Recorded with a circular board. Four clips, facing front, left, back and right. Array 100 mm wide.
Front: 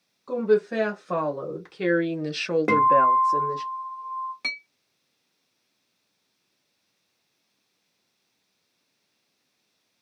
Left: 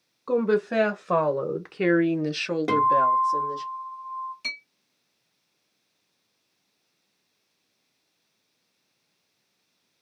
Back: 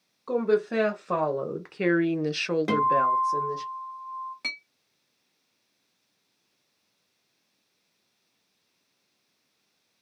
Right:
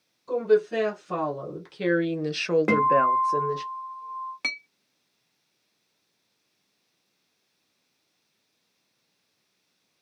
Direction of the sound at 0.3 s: 115° left.